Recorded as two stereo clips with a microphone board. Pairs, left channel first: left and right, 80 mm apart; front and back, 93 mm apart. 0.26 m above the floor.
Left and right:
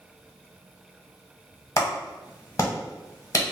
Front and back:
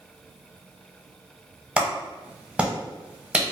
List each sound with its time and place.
1.8 s a clap: 110° left, 0.9 m